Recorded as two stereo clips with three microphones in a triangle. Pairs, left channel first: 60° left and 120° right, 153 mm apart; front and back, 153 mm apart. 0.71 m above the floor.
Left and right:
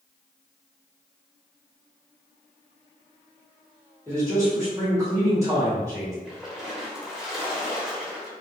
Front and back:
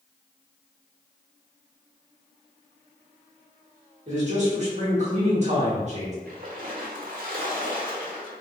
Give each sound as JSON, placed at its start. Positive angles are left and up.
{"t": 4.1, "sound": "a man speaking", "azimuth_deg": 175, "distance_m": 1.4}
{"t": 6.2, "sound": "a splash", "azimuth_deg": 150, "distance_m": 0.9}